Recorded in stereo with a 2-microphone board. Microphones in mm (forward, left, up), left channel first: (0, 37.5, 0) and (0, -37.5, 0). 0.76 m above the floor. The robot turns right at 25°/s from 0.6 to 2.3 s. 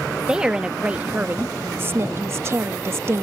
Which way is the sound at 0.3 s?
160° right.